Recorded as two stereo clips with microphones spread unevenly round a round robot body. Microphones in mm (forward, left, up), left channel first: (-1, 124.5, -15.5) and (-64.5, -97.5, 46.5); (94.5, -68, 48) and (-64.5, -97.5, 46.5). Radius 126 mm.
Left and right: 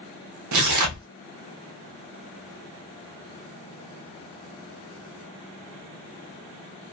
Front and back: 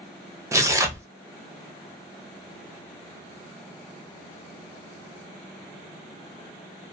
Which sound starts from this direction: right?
Tearing paper, at 0.5 s.